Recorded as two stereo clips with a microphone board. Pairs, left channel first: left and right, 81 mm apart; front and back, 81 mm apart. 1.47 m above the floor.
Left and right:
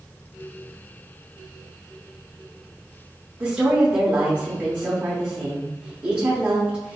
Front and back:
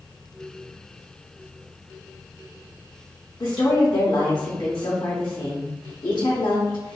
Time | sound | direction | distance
3.4 | a woman speaking | 25° right | 0.8 m